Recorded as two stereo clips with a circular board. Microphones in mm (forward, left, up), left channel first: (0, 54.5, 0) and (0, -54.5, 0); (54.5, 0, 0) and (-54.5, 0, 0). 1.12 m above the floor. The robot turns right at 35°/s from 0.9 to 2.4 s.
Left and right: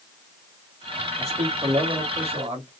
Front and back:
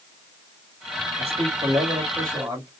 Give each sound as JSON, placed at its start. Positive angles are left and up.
{"t": 1.2, "sound": "a man speaking", "azimuth_deg": -155, "distance_m": 2.5}